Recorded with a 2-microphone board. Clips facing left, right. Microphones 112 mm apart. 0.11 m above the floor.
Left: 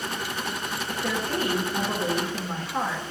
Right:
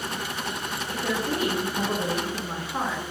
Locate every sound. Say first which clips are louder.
0.9 s a woman speaking: right 1 dB; 10° right (ahead or behind), 1.6 m